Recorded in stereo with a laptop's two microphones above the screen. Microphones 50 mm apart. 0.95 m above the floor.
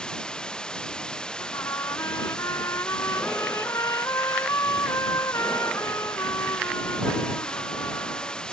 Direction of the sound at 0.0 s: 15° left (ahead or behind).